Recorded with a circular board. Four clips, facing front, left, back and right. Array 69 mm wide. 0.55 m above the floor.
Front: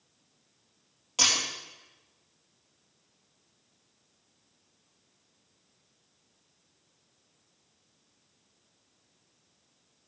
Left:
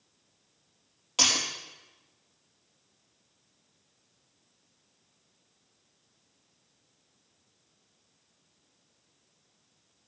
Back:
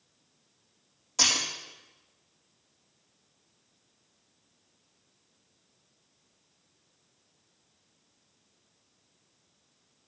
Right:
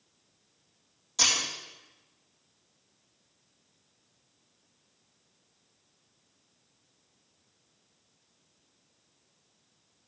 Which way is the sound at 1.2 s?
70° left.